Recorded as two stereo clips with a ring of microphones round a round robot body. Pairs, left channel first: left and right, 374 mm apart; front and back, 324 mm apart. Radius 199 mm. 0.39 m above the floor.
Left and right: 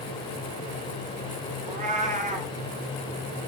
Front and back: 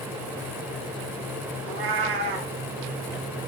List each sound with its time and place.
1.6 s a cat meowing: 160° right, 3.5 m